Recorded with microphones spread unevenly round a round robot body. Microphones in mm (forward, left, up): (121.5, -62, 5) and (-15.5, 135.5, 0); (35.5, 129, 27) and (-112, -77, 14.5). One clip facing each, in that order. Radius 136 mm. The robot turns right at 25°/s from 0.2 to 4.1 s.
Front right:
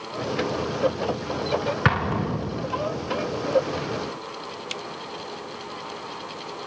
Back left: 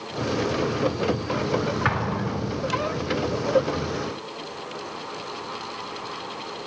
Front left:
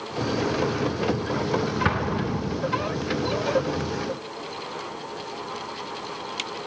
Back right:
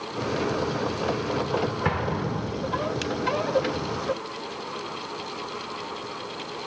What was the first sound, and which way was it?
An explosion, 15° right.